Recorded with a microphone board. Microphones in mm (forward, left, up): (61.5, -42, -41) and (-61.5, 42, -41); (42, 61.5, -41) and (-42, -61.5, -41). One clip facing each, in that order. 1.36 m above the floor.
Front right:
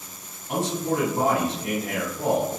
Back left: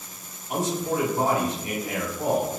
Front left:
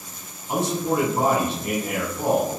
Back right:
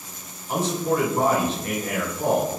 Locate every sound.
0.5 s a man speaking: 10° right, 1.8 m